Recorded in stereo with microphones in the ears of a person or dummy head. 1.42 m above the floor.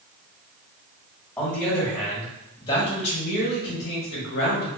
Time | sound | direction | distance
1.4 | a man speaking | 5° left (ahead or behind) | 1.5 m